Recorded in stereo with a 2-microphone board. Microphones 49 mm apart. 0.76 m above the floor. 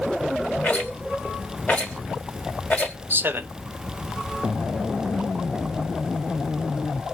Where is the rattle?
30° left (ahead or behind), 1.2 m.